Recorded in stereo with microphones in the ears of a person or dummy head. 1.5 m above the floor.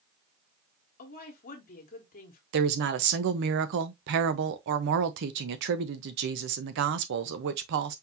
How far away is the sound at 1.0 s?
About 1.5 m.